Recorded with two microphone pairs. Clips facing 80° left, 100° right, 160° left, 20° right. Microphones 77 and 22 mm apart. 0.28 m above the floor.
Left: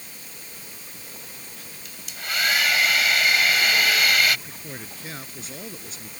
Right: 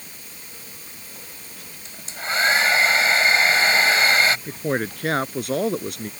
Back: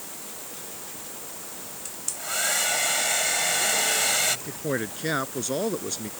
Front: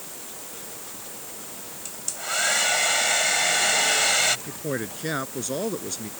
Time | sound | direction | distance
1.9 | a hair dryer | 80° right | ?
4.5 | a man speaking | 120° right | ?